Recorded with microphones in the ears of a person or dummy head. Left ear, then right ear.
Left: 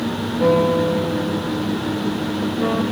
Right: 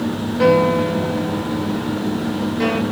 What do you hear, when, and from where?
0.4 s a piano: 70° right (ahead or behind), 3 m